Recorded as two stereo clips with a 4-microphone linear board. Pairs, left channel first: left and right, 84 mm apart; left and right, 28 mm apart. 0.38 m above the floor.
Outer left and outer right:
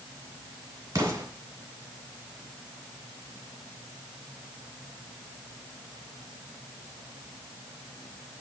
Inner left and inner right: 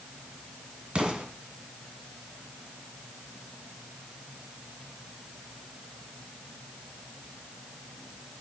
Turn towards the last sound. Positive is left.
turn(degrees=-40)  # may be behind; listen again after turning